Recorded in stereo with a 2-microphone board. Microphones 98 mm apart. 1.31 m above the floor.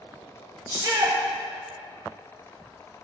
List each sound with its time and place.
0.7 s a shout: 35° right (ahead or behind), 3.5 m